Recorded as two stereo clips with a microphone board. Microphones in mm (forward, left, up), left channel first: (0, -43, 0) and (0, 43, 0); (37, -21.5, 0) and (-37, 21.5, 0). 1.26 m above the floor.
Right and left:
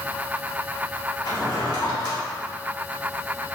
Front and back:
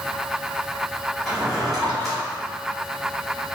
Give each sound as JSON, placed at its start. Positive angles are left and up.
{"t": 1.2, "sound": "a drawer", "azimuth_deg": -120, "distance_m": 1.8}